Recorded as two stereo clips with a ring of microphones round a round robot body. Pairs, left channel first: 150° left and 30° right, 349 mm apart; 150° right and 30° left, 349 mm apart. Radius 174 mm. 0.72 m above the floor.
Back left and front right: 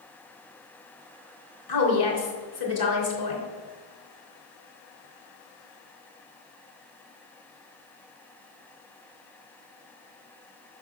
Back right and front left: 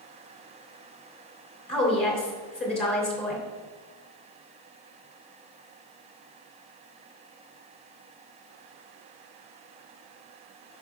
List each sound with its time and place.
1.7 s a woman speaking: 120° left, 3 m